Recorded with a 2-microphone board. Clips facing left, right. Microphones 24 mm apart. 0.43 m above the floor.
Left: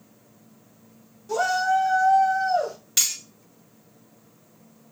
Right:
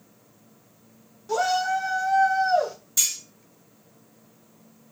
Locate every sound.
1.3 s a shout: 25° right (ahead or behind), 1.0 m; by 2.8 s 55° right (ahead or behind), 1.5 m
3.0 s cutlery clinking: 65° left (ahead or behind), 1.3 m